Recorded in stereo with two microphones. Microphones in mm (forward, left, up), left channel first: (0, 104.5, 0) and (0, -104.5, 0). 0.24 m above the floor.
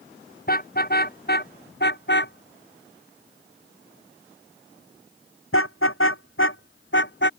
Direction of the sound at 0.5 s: 45° left (ahead or behind).